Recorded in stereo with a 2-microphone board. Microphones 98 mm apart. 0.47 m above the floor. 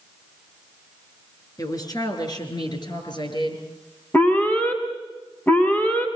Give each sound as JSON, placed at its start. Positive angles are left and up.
{"t": 1.6, "sound": "a woman speaking", "side_deg": 40, "distance_m": 5.5}
{"t": 4.1, "sound": "an alarm", "side_deg": 20, "distance_m": 5.5}